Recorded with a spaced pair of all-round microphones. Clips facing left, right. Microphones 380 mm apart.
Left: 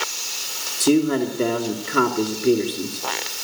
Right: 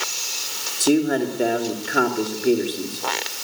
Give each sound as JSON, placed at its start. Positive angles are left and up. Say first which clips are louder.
{"t": 0.8, "sound": "a man speaking", "louder": "left 1 dB", "side_deg": 10, "distance_m": 2.0}